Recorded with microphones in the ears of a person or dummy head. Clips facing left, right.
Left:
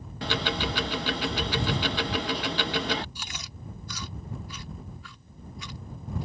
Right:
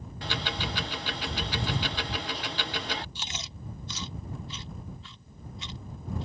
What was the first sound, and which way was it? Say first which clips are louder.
Ticking: left 5 dB; 45° left (ahead or behind).